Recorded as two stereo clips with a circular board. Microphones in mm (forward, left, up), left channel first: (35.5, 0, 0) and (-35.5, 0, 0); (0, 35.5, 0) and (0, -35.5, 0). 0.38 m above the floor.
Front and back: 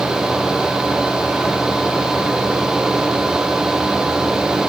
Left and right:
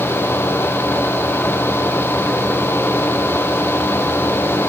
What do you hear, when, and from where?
Only background noise.